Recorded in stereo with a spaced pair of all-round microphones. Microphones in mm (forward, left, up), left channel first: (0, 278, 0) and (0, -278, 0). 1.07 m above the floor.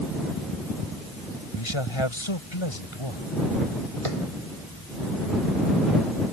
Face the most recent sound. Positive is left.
turn(degrees=-75)  # may be behind; listen again after turning